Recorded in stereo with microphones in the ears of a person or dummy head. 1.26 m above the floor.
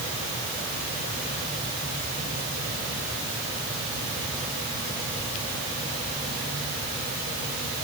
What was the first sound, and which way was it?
Only background noise.